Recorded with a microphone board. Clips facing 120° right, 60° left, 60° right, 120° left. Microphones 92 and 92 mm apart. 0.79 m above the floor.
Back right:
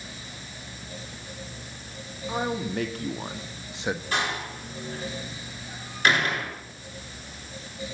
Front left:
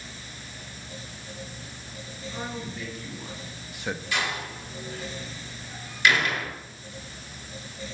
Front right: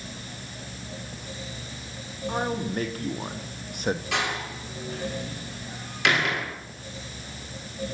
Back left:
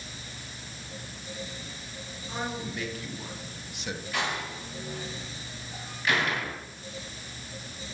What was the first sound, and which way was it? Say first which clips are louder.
A man speaking: back right 7 dB, front right 6 dB; 105° right.